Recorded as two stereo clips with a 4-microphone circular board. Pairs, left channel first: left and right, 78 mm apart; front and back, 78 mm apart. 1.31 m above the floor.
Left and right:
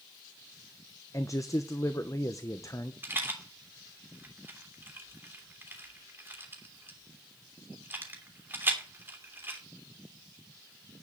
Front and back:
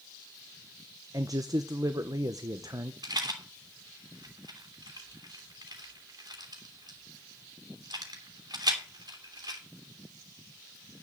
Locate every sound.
1.1 s a man speaking: 140° left, 0.7 m
3.0 s a rattle: 150° right, 2.5 m